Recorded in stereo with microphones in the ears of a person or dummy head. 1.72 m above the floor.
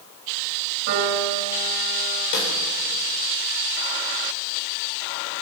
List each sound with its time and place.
0.9 s a piano: 55° right (ahead or behind), 2.5 m
2.3 s a snare drum: 65° left (ahead or behind), 3.5 m